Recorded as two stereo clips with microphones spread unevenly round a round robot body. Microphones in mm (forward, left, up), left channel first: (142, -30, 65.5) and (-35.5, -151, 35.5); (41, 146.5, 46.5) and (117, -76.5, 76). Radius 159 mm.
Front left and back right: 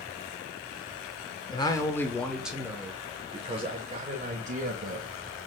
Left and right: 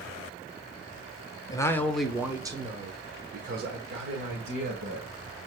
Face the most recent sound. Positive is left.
turn(degrees=-105)